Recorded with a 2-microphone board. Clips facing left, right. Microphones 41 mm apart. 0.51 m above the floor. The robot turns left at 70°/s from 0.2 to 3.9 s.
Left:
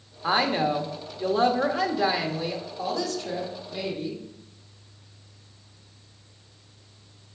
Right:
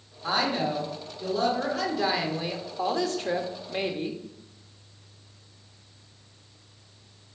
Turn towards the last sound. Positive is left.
turn(degrees=-120)